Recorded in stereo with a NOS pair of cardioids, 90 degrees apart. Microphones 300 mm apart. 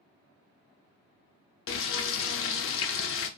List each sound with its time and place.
1.7 s frying: 45° left, 0.5 m